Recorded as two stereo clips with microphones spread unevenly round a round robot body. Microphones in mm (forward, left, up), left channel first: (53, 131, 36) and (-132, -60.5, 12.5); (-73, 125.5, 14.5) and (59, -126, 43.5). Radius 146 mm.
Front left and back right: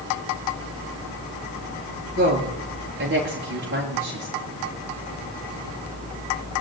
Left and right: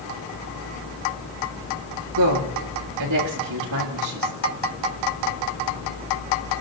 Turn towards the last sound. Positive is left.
turn(degrees=-80)